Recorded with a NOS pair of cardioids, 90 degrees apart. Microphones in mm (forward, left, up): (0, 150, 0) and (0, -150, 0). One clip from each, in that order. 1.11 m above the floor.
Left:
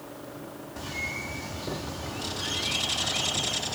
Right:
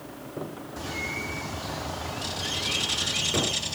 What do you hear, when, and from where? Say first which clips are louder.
0.8 s a bird: right 1 dB; 5° right, 1.3 m